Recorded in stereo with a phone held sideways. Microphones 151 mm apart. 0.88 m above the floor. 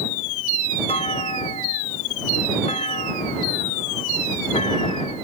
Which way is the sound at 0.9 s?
45° left (ahead or behind).